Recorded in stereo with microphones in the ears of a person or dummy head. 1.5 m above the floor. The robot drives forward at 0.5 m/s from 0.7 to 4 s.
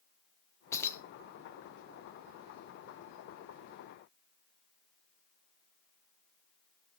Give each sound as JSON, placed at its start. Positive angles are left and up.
{"t": 0.7, "sound": "keys jangling", "side_deg": 20, "distance_m": 0.7}